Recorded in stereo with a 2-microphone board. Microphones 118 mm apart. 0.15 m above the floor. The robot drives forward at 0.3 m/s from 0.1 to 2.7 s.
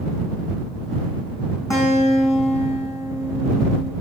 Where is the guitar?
30° left (ahead or behind), 5.5 m.